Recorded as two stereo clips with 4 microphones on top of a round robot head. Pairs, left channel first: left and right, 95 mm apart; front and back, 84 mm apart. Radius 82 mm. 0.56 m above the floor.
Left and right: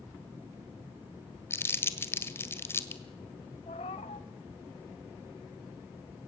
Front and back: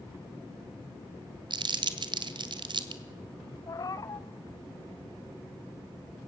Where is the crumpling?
155° left, 1.6 m.